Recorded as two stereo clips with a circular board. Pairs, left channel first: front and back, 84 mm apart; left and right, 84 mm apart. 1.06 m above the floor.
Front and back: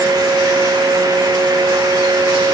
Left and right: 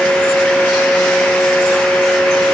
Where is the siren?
I don't hear a siren.